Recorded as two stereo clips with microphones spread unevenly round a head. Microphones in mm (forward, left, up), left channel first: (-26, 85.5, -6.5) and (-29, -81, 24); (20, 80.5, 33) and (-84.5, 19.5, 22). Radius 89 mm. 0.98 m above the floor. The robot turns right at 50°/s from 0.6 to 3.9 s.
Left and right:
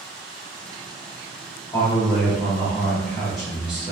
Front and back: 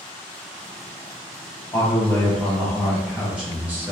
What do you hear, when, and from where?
1.7 s a man speaking: 70° left, 0.8 m; by 3.9 s straight behind, 0.8 m